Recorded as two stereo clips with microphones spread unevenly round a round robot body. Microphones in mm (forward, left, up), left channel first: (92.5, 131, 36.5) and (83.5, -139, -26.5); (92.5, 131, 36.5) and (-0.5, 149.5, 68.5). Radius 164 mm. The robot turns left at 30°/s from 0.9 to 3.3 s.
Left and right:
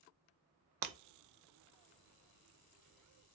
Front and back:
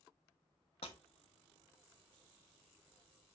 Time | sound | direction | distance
0.8 | breaking glass | 85° right | 0.5 m